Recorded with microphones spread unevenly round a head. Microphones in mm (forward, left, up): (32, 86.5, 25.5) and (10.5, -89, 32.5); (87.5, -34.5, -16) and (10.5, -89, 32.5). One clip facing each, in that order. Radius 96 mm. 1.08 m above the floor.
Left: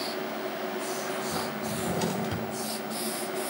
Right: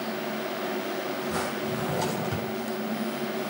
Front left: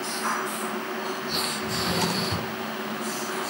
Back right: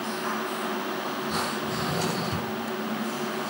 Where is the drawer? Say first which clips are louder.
Left 1 dB, front left 1 dB; 25° left, 5 m.